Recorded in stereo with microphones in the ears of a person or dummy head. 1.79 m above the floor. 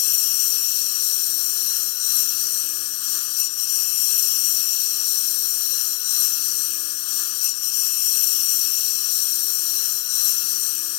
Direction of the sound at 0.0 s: 75° left (ahead or behind).